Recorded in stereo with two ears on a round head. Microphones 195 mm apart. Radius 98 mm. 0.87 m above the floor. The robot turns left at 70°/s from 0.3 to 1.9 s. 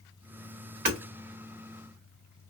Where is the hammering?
45° right (ahead or behind), 1.8 m; by 1.0 s 55° right (ahead or behind), 1.8 m.